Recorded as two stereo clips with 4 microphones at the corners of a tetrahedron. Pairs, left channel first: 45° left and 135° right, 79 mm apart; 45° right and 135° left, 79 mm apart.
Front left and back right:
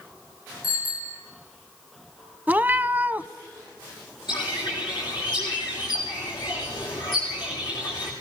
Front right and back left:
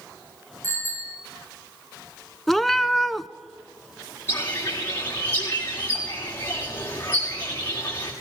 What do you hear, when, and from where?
0.6 s a bicycle bell: 85° left, 7.5 m
2.5 s a cat meowing: 125° right, 0.6 m
4.3 s a bird: 20° left, 7 m